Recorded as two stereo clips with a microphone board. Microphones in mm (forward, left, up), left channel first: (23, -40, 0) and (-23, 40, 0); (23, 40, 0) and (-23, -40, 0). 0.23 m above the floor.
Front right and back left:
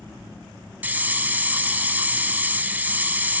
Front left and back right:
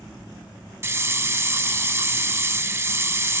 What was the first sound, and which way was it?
A hiss, 175° right.